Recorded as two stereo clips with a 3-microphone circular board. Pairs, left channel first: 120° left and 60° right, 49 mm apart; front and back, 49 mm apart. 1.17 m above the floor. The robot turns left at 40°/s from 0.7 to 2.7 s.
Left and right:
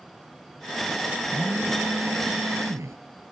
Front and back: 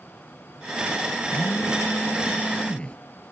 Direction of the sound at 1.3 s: 15° right.